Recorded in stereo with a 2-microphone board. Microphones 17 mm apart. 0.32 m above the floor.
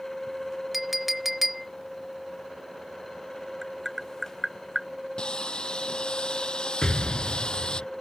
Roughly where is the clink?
Centre.